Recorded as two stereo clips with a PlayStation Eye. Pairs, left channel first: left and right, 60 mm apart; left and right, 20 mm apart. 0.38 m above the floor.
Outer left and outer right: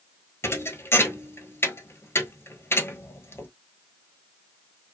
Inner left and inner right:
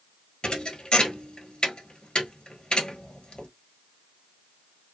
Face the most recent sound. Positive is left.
turn(degrees=50)  # may be behind; listen again after turning